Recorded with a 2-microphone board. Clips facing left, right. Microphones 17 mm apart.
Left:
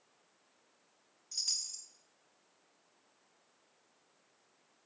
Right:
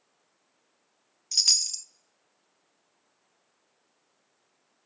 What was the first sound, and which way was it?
A chime, 50° right (ahead or behind).